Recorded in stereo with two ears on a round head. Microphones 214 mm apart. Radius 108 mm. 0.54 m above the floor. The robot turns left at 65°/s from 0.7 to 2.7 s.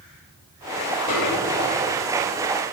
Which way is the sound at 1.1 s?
80° left.